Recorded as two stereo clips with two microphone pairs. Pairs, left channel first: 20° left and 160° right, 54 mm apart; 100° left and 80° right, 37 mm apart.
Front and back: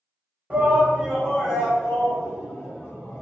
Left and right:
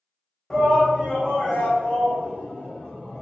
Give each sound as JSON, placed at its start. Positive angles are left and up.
{"t": 0.5, "sound": "a shout", "azimuth_deg": 175, "distance_m": 1.5}